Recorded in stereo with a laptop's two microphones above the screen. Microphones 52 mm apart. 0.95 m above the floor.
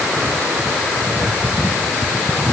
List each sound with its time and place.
Only background noise.